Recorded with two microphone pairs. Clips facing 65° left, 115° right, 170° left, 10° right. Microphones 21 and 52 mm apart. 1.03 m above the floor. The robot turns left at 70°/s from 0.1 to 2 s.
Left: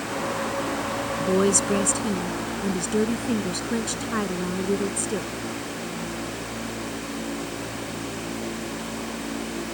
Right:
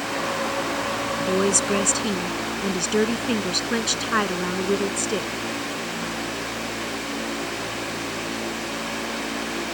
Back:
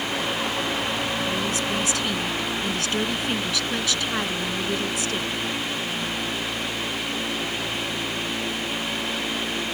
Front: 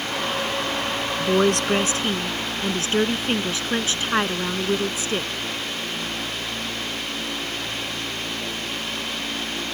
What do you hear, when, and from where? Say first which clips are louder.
1.2 s a woman speaking: left 1 dB, front 6 dB; 10° right; by 5.3 s 70° right